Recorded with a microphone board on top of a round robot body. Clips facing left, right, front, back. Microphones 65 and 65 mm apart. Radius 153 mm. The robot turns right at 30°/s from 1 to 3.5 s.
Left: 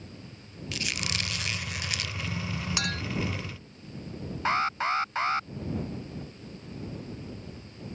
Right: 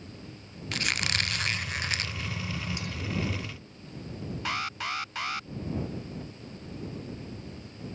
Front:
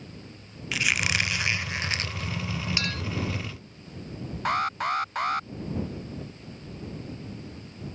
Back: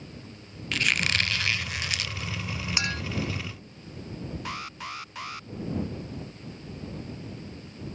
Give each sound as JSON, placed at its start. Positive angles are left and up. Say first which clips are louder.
{"t": 0.7, "sound": "a squeak", "louder": "right 4 dB, even", "azimuth_deg": -80}
{"t": 2.8, "sound": "a clink", "louder": "left 6 dB, back 1 dB", "azimuth_deg": 105}
{"t": 4.5, "sound": "an alarm", "louder": "left 7 dB, front 15 dB", "azimuth_deg": 35}